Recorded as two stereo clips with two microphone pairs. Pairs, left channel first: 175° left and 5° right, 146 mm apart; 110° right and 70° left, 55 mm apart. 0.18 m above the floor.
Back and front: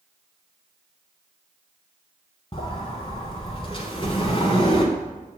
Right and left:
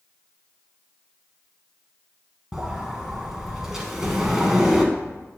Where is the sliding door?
145° left, 1.0 m.